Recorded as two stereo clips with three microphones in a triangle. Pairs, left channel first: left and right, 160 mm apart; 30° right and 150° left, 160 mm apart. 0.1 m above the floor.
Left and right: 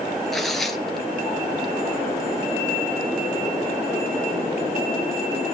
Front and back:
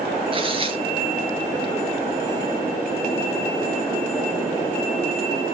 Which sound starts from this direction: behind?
Tearing paper, at 0.3 s.